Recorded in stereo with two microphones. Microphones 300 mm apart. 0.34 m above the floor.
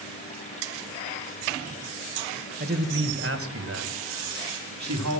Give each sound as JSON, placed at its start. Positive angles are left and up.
{"t": 2.6, "sound": "a man speaking", "side_deg": -30, "distance_m": 1.5}